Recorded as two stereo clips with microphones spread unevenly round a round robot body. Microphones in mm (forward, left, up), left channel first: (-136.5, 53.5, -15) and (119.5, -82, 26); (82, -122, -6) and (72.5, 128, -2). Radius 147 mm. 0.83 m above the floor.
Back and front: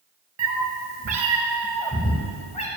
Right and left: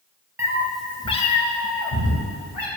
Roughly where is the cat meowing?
Ahead.